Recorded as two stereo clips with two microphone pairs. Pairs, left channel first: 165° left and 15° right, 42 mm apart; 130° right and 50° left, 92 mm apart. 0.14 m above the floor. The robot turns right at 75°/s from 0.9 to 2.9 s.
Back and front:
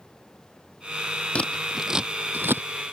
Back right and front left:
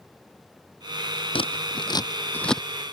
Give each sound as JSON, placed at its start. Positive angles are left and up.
{"t": 1.4, "sound": "scissors", "azimuth_deg": -135}